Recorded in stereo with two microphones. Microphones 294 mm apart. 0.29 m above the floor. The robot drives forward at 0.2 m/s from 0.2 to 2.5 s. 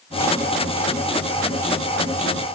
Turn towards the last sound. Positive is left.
No sound to turn to.